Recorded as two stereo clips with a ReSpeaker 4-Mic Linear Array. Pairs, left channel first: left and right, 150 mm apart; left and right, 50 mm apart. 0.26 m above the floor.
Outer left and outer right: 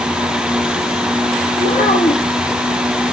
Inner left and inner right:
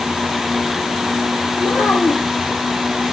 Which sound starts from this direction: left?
A child speaking, at 1.6 s.